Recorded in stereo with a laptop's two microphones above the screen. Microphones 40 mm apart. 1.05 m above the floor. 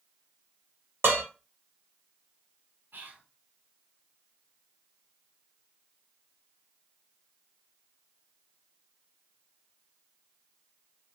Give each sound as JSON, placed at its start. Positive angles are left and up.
{"t": 1.0, "sound": "dishes clattering", "side_deg": -75, "distance_m": 1.1}
{"t": 2.9, "sound": "whispering", "side_deg": -55, "distance_m": 1.0}